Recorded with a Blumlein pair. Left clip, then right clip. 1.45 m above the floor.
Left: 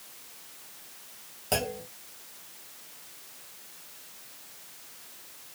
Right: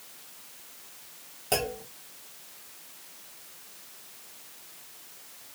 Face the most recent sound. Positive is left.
turn(degrees=0)